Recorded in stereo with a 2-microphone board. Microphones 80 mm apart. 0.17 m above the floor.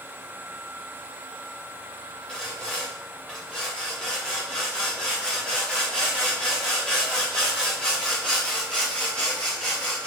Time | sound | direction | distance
2.3 | sawing | 10° left (ahead or behind) | 4 m